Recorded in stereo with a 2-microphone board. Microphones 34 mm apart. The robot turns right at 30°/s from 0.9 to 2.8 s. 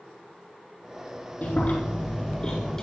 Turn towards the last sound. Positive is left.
turn(degrees=165)